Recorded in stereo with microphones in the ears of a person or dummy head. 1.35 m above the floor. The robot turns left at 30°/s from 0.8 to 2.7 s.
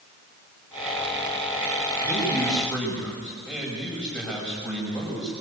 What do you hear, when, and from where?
2.0 s a man speaking: 15° right (ahead or behind), 6 m; by 5.3 s 5° left (ahead or behind), 6 m